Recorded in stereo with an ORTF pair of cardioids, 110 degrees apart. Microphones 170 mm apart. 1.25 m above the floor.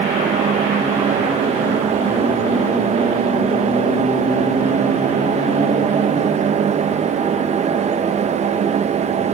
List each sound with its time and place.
0.0 s a fan: 40° right, 1.1 m